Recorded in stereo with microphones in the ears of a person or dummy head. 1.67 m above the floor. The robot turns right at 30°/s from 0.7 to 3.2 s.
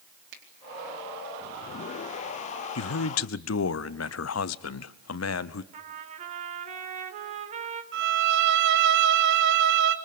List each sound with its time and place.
0.3 s a finger snap: 65° right (ahead or behind), 4 m
2.8 s a man speaking: 85° left, 0.8 m; by 5.6 s 75° left (ahead or behind), 0.8 m
5.7 s a trumpet: 40° right (ahead or behind), 2.5 m
7.9 s a violin: 60° right (ahead or behind), 1.2 m